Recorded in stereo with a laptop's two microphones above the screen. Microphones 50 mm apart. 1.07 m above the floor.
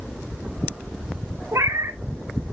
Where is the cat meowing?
75° right (ahead or behind), 0.9 m.